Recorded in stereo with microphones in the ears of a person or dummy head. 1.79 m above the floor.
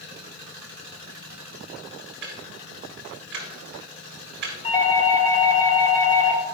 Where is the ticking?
55° right (ahead or behind), 1.7 m.